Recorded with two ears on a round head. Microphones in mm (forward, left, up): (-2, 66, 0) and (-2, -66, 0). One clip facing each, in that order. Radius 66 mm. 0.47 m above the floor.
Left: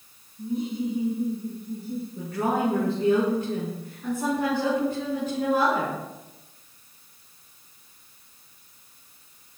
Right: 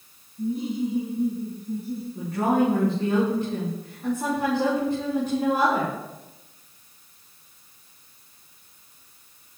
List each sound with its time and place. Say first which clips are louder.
0.4 s laughter: right 2 dB; 65° right (ahead or behind), 4 m; by 2.0 s 45° right (ahead or behind), 3.5 m
2.1 s a woman speaking: right 4 dB; 30° right (ahead or behind), 6 m